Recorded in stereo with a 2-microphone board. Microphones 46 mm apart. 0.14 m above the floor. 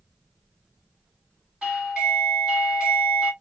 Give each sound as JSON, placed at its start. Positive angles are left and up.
{"t": 1.6, "sound": "a doorbell", "side_deg": -10, "distance_m": 2.5}